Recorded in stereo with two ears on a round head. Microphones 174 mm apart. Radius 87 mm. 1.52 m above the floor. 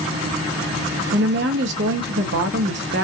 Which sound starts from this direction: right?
A woman speaking, at 1.1 s.